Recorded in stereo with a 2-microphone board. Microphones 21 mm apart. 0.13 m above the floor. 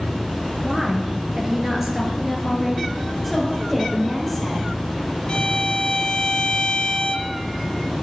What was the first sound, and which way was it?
A woman speaking, 35° right (ahead or behind).